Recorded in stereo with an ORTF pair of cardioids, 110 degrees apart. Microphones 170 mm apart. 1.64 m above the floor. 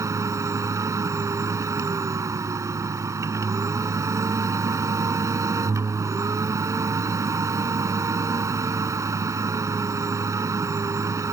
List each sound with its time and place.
0.0 s a machine running: 20° right